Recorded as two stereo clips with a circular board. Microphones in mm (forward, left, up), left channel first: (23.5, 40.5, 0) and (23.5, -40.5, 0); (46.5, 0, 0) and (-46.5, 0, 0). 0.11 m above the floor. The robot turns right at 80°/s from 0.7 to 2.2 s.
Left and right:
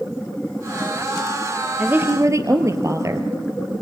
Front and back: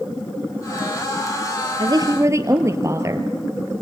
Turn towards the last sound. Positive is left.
turn(degrees=-130)